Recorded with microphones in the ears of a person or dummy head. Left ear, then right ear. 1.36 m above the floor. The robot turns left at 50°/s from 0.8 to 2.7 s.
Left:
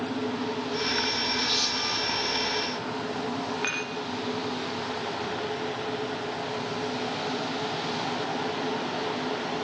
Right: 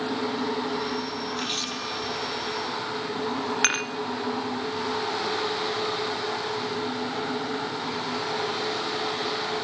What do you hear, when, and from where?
1.4 s a camera shutter: 140° right, 1.6 m; by 2.0 s 170° right, 1.6 m
3.6 s dishes clattering: 65° right (ahead or behind), 1.3 m